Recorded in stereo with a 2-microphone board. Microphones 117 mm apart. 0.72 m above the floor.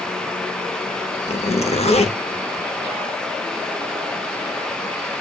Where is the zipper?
60° left (ahead or behind), 0.7 m.